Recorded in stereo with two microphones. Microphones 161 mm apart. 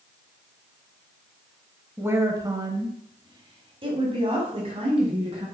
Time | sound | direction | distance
2.0 | a woman speaking | 15° right (ahead or behind) | 1.3 m